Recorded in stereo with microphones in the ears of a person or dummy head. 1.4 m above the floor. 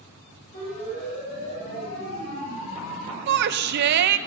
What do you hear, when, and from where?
0.5 s a siren: 55° left (ahead or behind), 8 m; by 3.2 s 75° left (ahead or behind), 7.5 m
3.3 s a shout: 55° right (ahead or behind), 0.8 m